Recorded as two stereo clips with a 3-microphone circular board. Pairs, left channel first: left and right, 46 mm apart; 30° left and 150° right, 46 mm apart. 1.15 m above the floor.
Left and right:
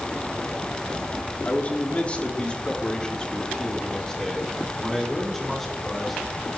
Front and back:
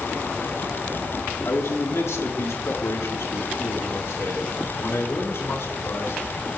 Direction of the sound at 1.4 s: 35° left.